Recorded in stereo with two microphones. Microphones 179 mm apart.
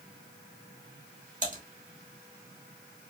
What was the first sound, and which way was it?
Typing on a keyboard, 45° right (ahead or behind).